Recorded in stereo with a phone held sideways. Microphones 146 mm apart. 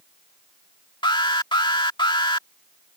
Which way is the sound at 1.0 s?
35° left (ahead or behind).